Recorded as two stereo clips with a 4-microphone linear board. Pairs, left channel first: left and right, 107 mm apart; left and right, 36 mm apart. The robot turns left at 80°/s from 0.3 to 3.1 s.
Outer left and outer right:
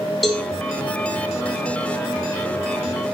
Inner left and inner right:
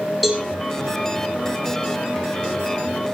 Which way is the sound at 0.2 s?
Centre (ahead or behind).